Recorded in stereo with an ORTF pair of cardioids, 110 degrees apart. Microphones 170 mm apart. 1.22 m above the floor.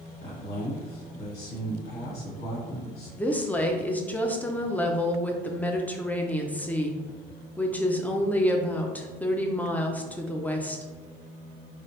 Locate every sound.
0.2 s a man speaking: 65° left, 2.0 m
3.2 s a woman speaking: 10° left, 0.6 m